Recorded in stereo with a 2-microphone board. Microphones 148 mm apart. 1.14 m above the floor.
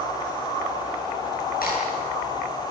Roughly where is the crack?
Left.